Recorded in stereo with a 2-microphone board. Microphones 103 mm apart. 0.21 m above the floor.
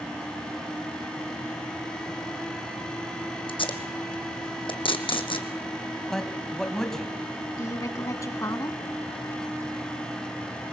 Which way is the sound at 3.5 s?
55° left (ahead or behind).